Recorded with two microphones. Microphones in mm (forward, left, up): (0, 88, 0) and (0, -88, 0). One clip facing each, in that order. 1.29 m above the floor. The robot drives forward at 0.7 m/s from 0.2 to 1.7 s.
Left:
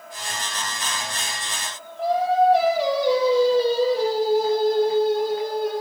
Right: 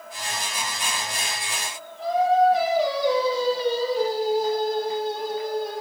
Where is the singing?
65° left (ahead or behind), 8.5 m.